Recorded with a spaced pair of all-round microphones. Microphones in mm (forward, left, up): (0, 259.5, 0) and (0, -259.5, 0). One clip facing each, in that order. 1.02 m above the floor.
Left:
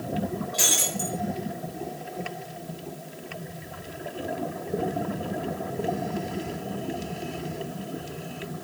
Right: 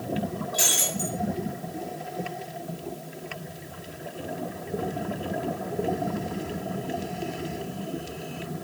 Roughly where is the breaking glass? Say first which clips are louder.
Even; left.